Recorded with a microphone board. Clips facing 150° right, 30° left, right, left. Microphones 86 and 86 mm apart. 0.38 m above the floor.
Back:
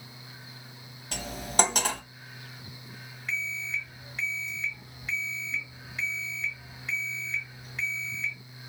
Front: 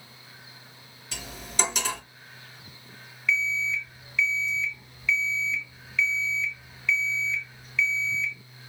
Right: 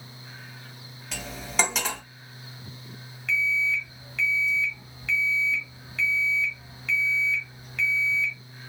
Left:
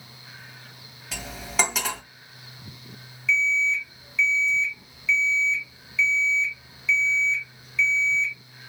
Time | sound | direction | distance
1.1 | cutlery clinking | straight behind | 1.4 m
3.3 | an alarm clock | 105° right | 1.1 m